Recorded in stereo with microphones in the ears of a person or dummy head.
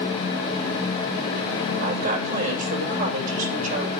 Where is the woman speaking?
40° right (ahead or behind), 7 m.